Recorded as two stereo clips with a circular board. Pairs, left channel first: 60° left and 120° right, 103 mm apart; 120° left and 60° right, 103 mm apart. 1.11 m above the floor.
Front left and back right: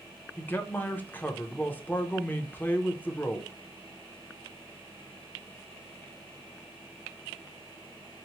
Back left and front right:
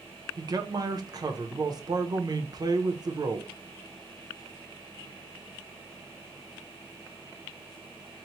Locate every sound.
0.4 s a man speaking: 10° right, 0.6 m